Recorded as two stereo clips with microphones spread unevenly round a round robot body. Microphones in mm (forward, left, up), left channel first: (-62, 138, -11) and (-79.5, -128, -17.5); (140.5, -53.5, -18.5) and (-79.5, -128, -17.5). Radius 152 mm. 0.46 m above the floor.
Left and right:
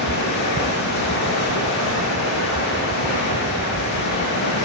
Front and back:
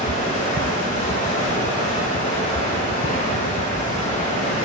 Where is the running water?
100° left, 7.5 m.